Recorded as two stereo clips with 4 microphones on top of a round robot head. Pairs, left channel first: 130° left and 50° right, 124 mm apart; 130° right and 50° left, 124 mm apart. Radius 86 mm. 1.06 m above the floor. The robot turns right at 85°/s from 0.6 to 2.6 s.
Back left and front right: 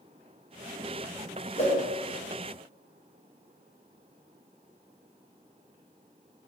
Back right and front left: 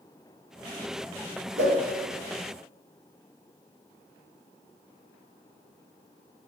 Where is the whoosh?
80° left, 0.5 m; by 1.7 s 95° left, 0.5 m.